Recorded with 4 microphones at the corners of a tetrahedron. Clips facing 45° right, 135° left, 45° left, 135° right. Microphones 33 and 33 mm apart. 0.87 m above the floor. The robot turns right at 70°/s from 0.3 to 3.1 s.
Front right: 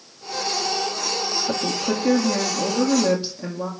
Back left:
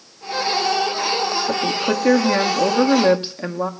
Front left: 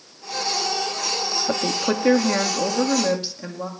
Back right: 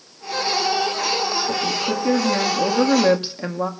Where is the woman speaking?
55° left, 1.7 m; by 3.7 s 170° left, 1.7 m.